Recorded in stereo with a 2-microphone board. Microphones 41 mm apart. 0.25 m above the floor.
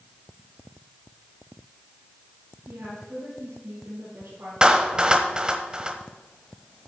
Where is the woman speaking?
75° right (ahead or behind), 5.5 m.